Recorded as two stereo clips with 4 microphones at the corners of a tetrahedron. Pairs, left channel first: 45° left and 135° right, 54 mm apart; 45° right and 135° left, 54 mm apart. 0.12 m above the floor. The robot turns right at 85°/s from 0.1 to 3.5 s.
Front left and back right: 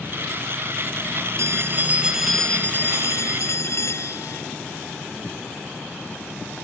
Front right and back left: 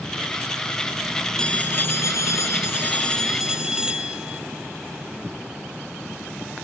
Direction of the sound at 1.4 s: 120° right.